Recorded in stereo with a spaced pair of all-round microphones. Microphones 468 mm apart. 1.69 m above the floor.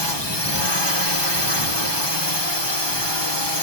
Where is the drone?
60° left (ahead or behind).